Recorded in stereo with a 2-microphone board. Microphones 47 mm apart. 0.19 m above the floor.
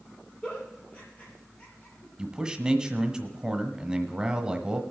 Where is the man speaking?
15° right (ahead or behind), 1.0 m.